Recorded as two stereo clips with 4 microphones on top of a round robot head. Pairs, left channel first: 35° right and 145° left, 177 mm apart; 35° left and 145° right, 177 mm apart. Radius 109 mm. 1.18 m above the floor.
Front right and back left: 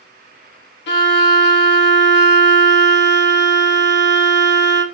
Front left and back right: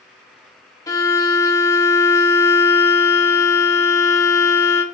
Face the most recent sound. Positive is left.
turn(degrees=-35)